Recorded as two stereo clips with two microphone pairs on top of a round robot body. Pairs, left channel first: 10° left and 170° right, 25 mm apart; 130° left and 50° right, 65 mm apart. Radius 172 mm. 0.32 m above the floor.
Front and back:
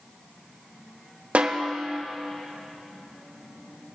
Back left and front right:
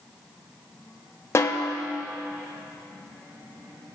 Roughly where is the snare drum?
Behind.